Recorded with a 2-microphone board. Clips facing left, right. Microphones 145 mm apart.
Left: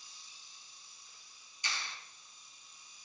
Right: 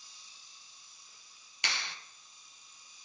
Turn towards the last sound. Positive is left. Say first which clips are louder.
# right 3 dB
turn(degrees=-75)  # may be behind; listen again after turning